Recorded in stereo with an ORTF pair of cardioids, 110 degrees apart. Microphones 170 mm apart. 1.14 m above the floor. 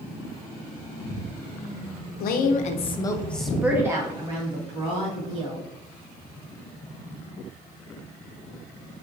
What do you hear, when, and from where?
2.2 s a woman speaking: 70° left, 0.6 m; by 5.7 s 40° right, 1.5 m